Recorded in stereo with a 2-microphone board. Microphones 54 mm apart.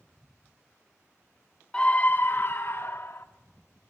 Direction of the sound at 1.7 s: 20° left (ahead or behind).